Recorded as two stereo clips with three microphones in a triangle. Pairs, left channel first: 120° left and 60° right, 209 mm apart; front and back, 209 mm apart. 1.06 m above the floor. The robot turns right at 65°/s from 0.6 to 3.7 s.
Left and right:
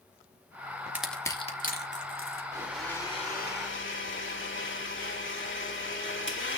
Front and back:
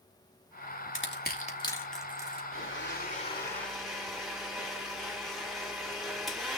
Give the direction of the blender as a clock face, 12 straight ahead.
12 o'clock.